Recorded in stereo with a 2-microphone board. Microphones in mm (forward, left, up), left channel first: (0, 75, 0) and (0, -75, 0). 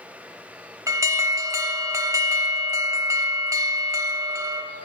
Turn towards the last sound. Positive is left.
turn(degrees=-20)  # may be behind; listen again after turning